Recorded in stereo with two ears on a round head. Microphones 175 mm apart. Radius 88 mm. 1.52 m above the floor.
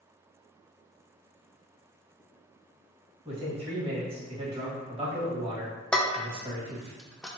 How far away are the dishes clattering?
About 0.5 m.